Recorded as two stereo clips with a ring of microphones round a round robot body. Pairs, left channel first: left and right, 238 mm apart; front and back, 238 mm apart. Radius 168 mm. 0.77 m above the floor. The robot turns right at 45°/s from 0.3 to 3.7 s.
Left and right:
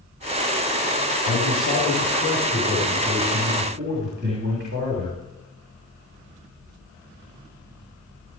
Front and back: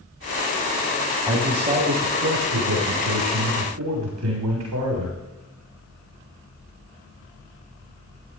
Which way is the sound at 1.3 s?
100° left.